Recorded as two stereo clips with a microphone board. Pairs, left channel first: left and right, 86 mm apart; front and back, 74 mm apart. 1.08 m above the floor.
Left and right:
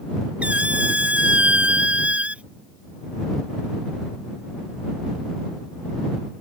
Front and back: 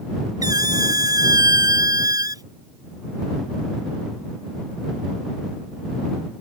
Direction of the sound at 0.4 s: 165° right.